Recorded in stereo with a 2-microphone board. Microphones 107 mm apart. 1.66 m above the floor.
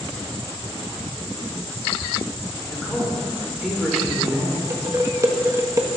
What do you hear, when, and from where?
2.7 s a man speaking: centre (ahead or behind), 4.5 m
4.7 s dishes clattering: 30° right (ahead or behind), 1.5 m